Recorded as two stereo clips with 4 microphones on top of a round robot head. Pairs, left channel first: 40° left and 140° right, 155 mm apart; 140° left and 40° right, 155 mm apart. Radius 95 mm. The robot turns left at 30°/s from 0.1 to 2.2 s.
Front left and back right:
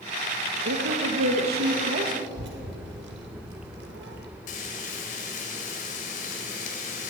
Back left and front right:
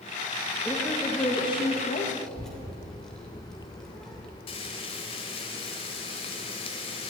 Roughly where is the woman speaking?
Behind right.